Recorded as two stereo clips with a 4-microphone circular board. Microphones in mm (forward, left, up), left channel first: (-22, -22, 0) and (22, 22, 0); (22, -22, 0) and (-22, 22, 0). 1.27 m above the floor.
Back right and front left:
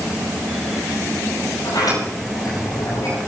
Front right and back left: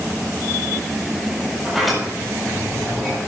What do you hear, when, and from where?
1.6 s a sliding door: 135° right, 8.5 m